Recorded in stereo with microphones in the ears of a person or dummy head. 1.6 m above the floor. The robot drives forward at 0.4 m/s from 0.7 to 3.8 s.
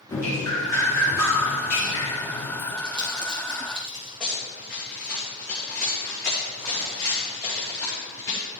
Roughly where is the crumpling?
Right.